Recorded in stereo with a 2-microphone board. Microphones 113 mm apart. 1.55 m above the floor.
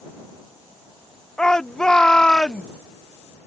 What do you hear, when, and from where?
1.4 s a shout: 5° left (ahead or behind)